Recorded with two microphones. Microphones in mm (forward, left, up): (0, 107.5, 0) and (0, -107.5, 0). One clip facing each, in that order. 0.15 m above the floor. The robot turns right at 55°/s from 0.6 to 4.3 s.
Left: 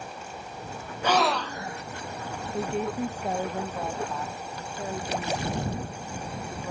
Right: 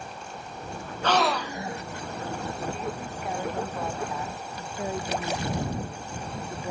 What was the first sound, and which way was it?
A gasp, 170° left.